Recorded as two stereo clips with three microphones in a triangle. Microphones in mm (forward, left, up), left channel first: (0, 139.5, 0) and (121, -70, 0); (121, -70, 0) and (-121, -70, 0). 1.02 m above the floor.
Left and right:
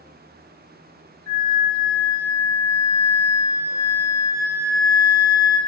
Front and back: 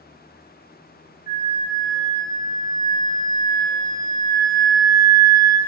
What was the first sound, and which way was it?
A flute, 45° left.